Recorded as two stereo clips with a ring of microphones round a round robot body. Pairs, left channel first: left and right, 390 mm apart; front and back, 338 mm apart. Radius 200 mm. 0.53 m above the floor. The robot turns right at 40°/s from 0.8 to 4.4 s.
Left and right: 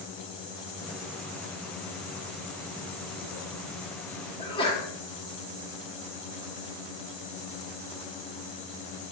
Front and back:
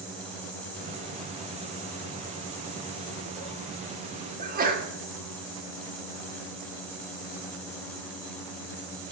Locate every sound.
4.4 s a sneeze: 150° left, 1.4 m